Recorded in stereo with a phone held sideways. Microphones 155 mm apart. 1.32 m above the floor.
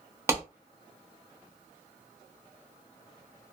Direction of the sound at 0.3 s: 15° right (ahead or behind).